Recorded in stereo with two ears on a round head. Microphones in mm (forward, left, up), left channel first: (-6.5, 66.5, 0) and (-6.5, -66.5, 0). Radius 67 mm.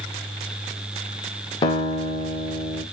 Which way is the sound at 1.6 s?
30° left (ahead or behind).